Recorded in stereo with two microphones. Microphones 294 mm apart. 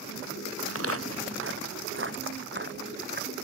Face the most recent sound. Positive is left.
turn(degrees=-35)  # may be behind; listen again after turning